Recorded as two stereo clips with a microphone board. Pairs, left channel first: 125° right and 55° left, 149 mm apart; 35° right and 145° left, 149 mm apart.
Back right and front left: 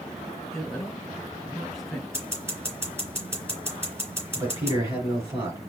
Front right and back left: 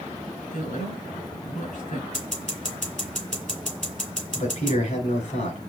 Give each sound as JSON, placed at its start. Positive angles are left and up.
{"t": 0.5, "sound": "a man speaking", "azimuth_deg": -35, "distance_m": 3.5}
{"t": 2.1, "sound": "scissors", "azimuth_deg": -15, "distance_m": 3.0}
{"t": 4.3, "sound": "a man speaking", "azimuth_deg": -10, "distance_m": 3.5}